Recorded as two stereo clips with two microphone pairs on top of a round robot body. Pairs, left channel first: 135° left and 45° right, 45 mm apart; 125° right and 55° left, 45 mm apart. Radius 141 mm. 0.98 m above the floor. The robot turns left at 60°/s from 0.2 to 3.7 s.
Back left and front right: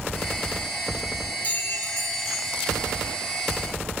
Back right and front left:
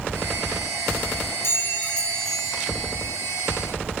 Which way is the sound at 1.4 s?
160° right.